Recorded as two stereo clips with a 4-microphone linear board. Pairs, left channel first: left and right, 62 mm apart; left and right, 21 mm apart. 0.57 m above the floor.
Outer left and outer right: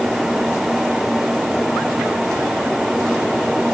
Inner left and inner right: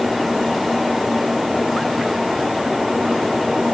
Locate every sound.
Only background noise.